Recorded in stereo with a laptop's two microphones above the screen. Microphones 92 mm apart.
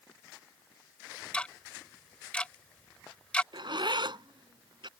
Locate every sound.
1.3 s ticking: 15° left (ahead or behind)
3.5 s a zipper: 65° right (ahead or behind)